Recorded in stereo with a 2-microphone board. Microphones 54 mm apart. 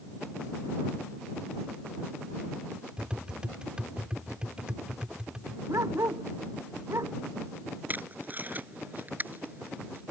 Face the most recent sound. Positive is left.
turn(degrees=-35)  # may be behind; listen again after turning